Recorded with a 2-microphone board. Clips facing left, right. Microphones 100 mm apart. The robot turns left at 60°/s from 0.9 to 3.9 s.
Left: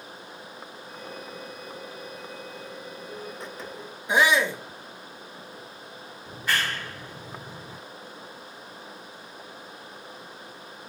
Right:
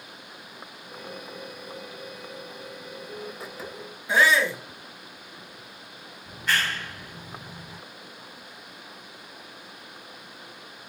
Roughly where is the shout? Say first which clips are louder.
Even; centre.